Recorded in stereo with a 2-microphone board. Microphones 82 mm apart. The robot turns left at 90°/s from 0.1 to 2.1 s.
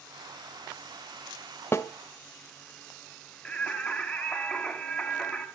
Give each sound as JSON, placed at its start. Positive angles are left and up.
{"t": 1.7, "sound": "a snare drum", "side_deg": 30, "distance_m": 1.1}
{"t": 3.5, "sound": "singing", "side_deg": 10, "distance_m": 3.5}